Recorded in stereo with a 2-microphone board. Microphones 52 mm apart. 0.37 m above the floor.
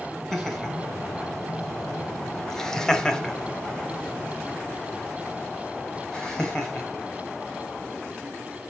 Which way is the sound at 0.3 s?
5° left (ahead or behind).